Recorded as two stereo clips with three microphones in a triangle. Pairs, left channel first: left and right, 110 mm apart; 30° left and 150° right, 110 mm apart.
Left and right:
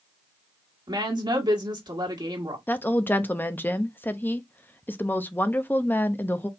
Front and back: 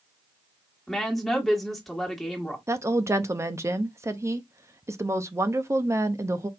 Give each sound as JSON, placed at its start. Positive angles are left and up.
{"t": 0.9, "sound": "a woman speaking", "azimuth_deg": -55, "distance_m": 1.3}
{"t": 2.7, "sound": "a woman speaking", "azimuth_deg": 160, "distance_m": 0.6}